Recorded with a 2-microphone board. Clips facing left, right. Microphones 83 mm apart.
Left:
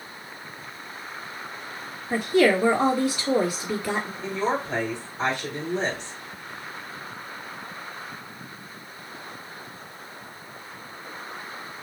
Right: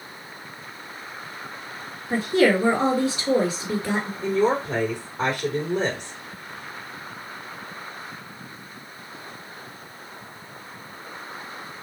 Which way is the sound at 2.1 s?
20° right (ahead or behind).